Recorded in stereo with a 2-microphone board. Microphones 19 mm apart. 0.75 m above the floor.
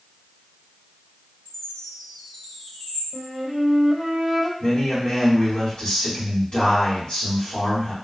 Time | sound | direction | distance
1.4 | a chime | 80° left | 1.9 m
3.1 | a flute | 5° left (ahead or behind) | 1.1 m
4.6 | a man speaking | 55° left (ahead or behind) | 1.9 m